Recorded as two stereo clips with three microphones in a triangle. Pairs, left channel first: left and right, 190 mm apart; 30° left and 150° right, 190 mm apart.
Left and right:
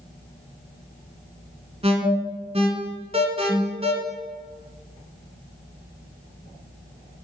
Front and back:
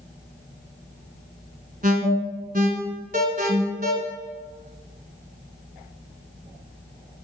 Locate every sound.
1.8 s an alarm: 135° right, 1.2 m